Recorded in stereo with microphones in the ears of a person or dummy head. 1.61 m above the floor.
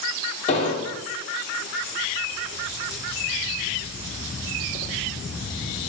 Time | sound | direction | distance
0.5 | an explosion | 30° left (ahead or behind) | 2 m